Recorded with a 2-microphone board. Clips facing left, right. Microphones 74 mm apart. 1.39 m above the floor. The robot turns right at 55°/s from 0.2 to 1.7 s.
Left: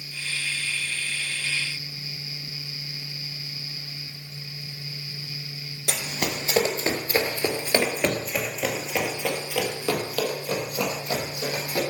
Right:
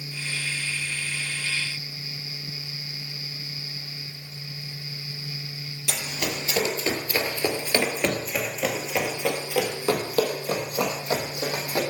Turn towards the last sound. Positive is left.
turn(degrees=-35)  # may be behind; listen again after turning